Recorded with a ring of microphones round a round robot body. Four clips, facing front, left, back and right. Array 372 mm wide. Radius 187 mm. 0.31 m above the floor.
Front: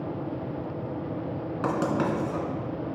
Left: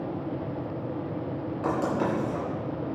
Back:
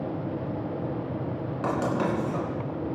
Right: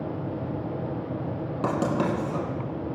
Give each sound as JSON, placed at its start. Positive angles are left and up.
{"t": 1.6, "sound": "writing", "azimuth_deg": -70, "distance_m": 3.0}